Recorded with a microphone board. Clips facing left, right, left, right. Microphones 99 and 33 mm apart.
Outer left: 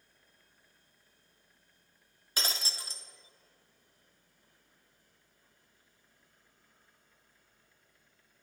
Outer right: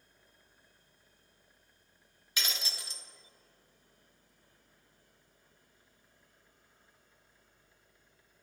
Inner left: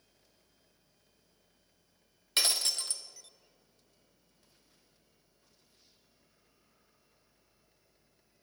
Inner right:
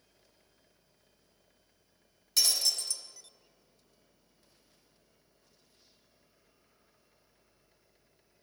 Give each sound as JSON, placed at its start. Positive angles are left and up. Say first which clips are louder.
{"t": 2.4, "sound": "breaking glass", "louder": "outer left 2 dB, inner right 1 dB", "side_deg": 35, "distance_m": 0.9}